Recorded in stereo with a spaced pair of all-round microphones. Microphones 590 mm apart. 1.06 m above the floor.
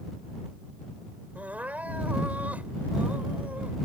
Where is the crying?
Centre (ahead or behind).